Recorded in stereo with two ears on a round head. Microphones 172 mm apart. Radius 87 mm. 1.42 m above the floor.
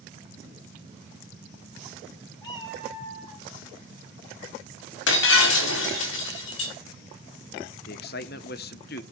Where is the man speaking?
50° left (ahead or behind), 1.1 m.